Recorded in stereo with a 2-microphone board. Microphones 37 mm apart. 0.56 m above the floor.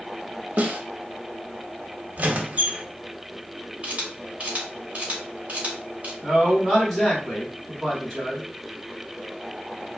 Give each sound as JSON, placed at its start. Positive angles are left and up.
{"t": 0.6, "sound": "a snare drum", "side_deg": -45, "distance_m": 0.8}
{"t": 2.2, "sound": "a squeak", "side_deg": -45, "distance_m": 0.7}
{"t": 3.8, "sound": "a camera shutter", "side_deg": -35, "distance_m": 1.4}
{"t": 6.2, "sound": "a man speaking", "side_deg": 0, "distance_m": 2.0}